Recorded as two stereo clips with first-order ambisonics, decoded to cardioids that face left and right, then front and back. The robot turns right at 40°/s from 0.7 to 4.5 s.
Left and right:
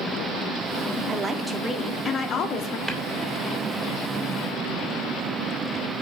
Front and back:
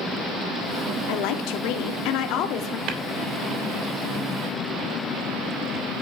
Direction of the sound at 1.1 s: 20° right.